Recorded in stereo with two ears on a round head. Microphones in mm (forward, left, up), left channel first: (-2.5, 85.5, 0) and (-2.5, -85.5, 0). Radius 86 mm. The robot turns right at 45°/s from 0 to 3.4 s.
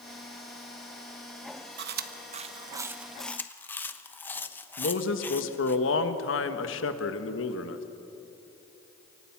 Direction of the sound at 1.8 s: 60° right (ahead or behind).